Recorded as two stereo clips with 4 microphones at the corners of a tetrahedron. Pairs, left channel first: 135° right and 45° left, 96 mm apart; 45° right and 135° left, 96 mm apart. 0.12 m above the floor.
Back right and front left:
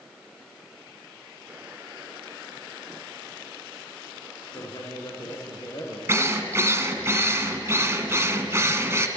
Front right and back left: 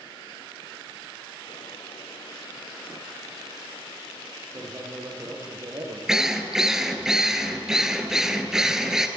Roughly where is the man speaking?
Behind.